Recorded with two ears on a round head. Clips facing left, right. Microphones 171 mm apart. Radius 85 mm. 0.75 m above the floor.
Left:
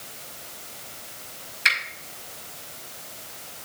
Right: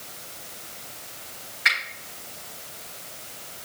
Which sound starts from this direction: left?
A finger snap, at 1.6 s.